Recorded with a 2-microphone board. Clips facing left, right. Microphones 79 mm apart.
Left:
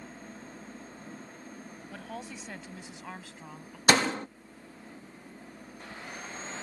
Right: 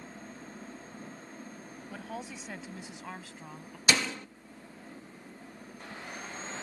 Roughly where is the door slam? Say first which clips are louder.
Left 5 dB; left.